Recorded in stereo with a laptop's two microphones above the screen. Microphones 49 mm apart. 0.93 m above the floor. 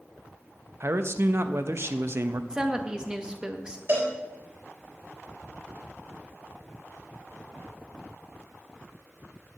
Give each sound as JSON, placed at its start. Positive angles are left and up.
{"t": 0.8, "sound": "a man speaking", "side_deg": -50, "distance_m": 0.8}
{"t": 2.5, "sound": "a woman speaking", "side_deg": -15, "distance_m": 1.0}
{"t": 3.9, "sound": "a cowbell", "side_deg": -45, "distance_m": 4.0}